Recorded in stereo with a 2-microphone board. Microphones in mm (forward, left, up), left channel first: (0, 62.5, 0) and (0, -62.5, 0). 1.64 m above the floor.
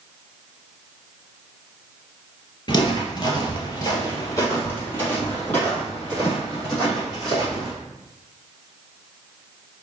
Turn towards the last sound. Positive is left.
turn(degrees=0)  # may be behind; listen again after turning